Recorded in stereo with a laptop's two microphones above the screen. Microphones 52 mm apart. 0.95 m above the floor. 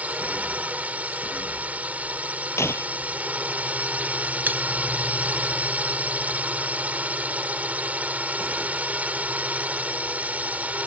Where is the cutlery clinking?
35° right (ahead or behind).